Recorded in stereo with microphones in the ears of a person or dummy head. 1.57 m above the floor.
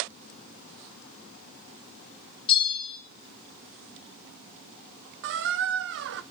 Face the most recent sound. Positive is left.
turn(degrees=-60)  # may be behind; listen again after turning